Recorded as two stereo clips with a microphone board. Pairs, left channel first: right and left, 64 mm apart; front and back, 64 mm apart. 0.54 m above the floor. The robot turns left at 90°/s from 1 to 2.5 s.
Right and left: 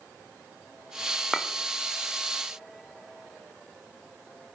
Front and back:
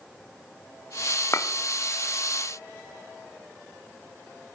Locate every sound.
1.3 s a clink: straight ahead, 0.5 m; by 1.5 s 10° right, 0.5 m